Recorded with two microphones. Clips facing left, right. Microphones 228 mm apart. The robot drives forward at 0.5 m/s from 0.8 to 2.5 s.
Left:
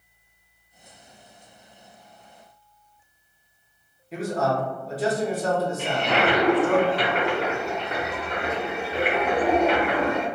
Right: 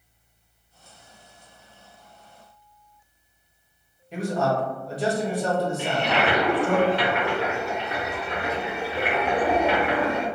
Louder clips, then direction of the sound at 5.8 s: Left 1 dB; 35° left (ahead or behind).